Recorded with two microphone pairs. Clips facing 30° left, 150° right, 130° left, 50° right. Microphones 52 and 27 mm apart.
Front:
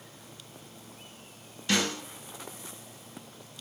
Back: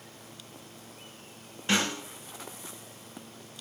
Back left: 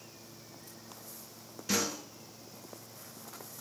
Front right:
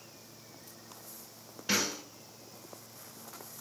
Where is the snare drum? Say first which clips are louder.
Even, front right 1 dB; 90° right, 1.4 m.